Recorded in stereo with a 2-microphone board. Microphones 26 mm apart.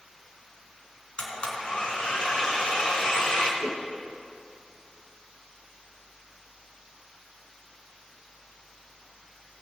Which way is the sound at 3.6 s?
55° left (ahead or behind).